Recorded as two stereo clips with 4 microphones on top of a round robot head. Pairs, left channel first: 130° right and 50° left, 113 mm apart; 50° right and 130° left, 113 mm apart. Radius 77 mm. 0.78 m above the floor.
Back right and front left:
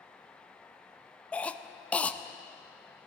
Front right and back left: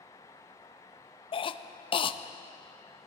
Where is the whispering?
No whispering in this recording.